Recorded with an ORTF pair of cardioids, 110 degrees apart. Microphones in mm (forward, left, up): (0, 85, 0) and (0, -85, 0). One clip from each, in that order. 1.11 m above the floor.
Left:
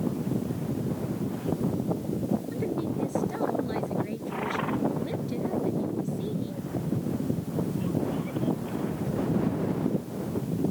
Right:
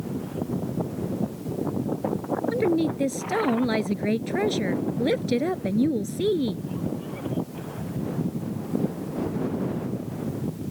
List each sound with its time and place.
2.5 s a woman speaking: 70° right; by 6.7 s 75° right